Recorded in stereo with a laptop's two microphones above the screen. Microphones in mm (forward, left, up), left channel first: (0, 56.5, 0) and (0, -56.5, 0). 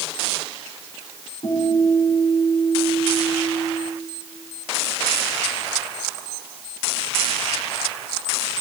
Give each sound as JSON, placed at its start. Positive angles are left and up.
{"t": 1.4, "sound": "a guitar", "side_deg": 70, "distance_m": 6.5}